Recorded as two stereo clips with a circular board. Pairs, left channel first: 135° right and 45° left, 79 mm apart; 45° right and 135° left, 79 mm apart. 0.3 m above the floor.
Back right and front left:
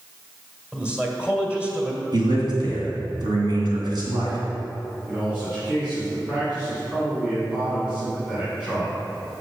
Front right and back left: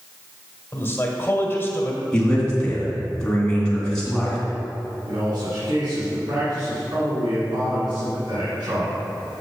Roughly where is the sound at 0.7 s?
Ahead.